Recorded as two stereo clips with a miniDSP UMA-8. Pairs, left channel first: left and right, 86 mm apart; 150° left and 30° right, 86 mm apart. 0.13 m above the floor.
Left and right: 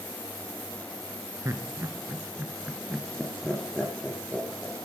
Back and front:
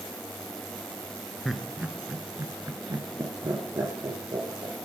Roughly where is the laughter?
Behind right.